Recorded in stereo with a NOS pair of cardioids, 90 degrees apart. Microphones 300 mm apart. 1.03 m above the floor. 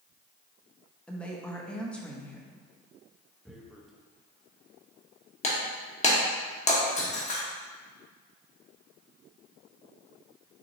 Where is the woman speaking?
5° left, 0.9 m.